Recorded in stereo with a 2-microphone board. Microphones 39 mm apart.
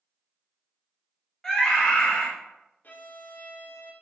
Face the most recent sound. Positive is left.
turn(degrees=55)  # may be behind; listen again after turning